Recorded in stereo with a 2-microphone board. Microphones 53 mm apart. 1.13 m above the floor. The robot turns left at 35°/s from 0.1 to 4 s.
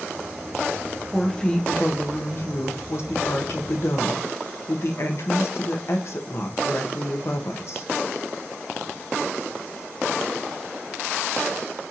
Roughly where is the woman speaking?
Behind.